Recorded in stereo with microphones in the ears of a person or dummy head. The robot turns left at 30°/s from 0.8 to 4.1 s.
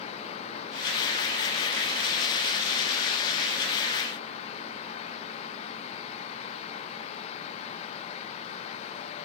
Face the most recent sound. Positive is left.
No sound to turn to.